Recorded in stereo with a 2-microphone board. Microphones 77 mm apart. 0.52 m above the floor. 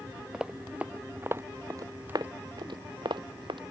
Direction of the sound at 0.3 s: 10° right (ahead or behind).